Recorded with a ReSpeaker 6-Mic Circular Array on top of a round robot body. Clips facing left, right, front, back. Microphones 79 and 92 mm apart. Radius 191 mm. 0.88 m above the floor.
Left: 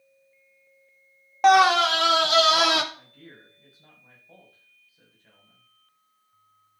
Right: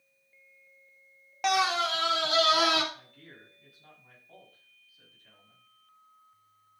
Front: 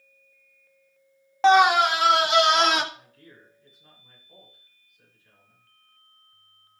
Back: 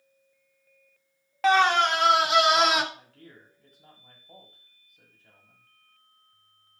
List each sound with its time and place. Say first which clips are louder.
1.4 s a scream: left 10 dB, front 4 dB; 55° left, 0.5 m; by 2.8 s 95° left, 2 m
2.9 s a man speaking: left 3 dB, back 1 dB; 150° left, 6.5 m